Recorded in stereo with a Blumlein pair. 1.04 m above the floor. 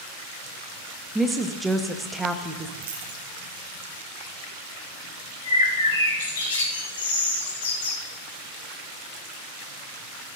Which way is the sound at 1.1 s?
5° right.